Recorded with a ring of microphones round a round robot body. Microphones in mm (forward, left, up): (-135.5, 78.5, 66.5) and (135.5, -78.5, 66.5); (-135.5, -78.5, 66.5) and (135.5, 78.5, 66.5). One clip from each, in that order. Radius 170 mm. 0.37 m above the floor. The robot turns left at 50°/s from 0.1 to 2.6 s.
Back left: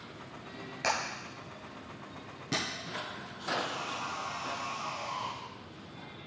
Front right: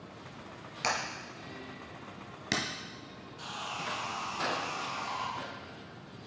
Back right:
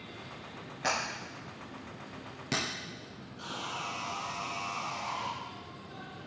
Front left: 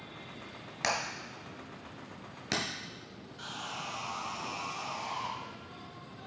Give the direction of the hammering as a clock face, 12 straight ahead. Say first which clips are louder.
Back left 1 dB, even; 10 o'clock.